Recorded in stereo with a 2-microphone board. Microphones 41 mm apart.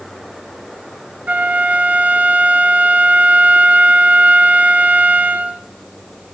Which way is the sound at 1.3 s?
45° right (ahead or behind).